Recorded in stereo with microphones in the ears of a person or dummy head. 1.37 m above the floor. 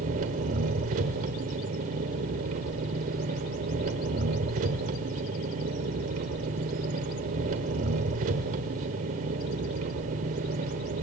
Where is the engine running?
35° right (ahead or behind), 1.4 m.